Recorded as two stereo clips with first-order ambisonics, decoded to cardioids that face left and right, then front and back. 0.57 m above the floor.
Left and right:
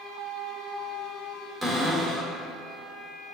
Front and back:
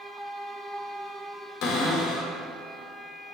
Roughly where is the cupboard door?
Ahead.